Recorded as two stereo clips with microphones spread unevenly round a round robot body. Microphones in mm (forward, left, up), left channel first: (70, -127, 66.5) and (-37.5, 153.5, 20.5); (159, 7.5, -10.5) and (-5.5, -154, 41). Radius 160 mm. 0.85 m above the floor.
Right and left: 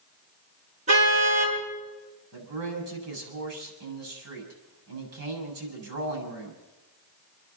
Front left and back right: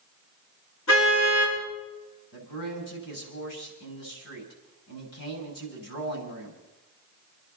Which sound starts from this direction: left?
A man speaking, at 2.3 s.